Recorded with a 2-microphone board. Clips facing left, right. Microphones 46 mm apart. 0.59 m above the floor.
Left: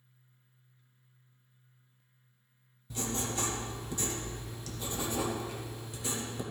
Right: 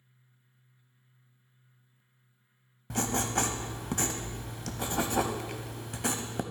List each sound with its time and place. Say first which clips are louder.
2.9 s writing: right 5 dB; 70° right (ahead or behind), 0.7 m